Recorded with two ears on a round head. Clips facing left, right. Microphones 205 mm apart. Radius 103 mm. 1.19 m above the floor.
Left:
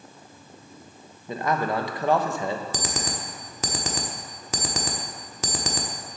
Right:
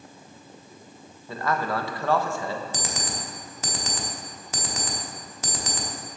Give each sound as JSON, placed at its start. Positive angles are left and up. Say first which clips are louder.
{"t": 1.3, "sound": "a man speaking", "louder": "left 2 dB", "side_deg": 15, "distance_m": 0.9}
{"t": 2.7, "sound": "an alarm clock", "louder": "left 2 dB", "side_deg": 55, "distance_m": 1.4}